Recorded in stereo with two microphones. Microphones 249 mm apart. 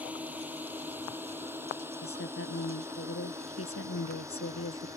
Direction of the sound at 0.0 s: 5° right (ahead or behind).